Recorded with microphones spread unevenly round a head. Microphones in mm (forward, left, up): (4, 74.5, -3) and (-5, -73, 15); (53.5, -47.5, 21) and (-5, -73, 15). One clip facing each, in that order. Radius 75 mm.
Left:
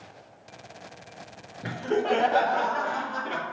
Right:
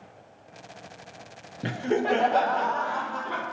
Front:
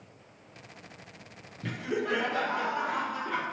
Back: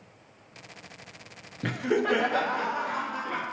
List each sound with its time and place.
1.6 s laughter: 150° right, 0.6 m; by 3.4 s 150° left, 1.4 m